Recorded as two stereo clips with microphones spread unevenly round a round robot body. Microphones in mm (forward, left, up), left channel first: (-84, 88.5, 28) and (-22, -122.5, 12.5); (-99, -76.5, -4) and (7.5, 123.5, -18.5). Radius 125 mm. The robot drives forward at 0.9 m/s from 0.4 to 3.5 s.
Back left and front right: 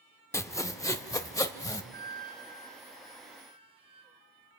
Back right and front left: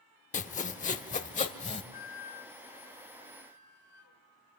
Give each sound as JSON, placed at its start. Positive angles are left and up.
{"t": 0.3, "sound": "sawing", "azimuth_deg": -175, "distance_m": 0.9}
{"t": 1.9, "sound": "a flute", "azimuth_deg": -110, "distance_m": 2.5}